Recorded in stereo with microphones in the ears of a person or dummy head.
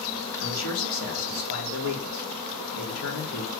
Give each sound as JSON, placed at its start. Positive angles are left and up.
{"t": 0.4, "sound": "a man speaking", "side_deg": 85, "distance_m": 3.0}